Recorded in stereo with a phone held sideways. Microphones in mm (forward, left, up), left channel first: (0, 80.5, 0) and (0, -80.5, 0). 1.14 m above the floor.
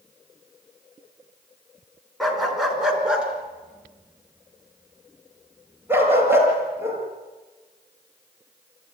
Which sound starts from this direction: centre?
A dog barking, at 2.2 s.